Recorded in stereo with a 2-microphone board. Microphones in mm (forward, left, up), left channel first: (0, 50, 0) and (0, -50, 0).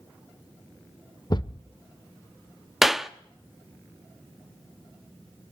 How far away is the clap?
About 0.6 m.